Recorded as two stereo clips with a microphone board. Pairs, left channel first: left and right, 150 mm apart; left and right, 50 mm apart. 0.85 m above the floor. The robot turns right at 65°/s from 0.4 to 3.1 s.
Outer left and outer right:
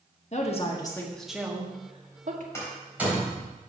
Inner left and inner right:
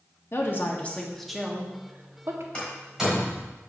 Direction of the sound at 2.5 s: 20° left (ahead or behind).